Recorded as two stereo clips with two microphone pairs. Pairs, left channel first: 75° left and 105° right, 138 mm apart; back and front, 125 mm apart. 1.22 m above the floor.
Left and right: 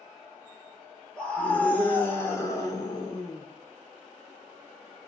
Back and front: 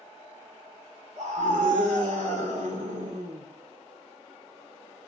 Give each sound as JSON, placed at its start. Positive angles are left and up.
{"t": 1.2, "sound": "a scream", "azimuth_deg": -10, "distance_m": 3.0}